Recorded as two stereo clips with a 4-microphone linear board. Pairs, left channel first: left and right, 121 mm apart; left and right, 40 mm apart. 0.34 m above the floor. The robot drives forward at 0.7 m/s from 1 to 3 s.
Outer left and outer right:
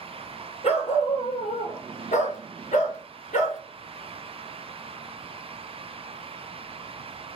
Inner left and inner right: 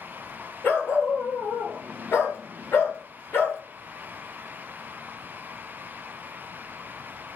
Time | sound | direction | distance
0.6 | a dog barking | 55° left (ahead or behind) | 2.0 m